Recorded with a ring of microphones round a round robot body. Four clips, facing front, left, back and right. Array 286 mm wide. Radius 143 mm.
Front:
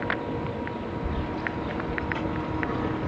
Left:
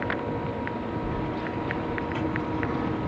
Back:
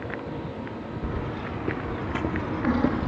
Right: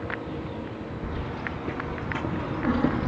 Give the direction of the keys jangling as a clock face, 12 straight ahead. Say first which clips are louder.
Left 4 dB, back 1 dB; 6 o'clock.